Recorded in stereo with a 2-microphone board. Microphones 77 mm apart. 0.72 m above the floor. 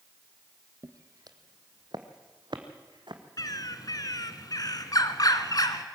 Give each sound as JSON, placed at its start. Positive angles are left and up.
{"t": 0.8, "sound": "footsteps", "side_deg": -50, "distance_m": 1.1}
{"t": 3.4, "sound": "a bird", "side_deg": 55, "distance_m": 1.3}